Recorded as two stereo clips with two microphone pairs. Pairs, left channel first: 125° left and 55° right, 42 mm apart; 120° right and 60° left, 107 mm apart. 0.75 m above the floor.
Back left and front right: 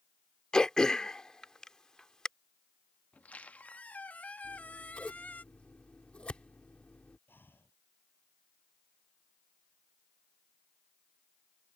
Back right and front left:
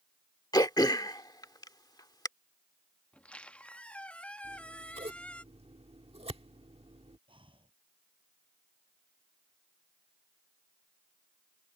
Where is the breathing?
95° left.